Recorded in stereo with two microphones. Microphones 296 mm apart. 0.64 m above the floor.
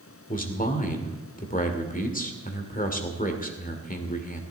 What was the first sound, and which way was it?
A man speaking, 25° left (ahead or behind).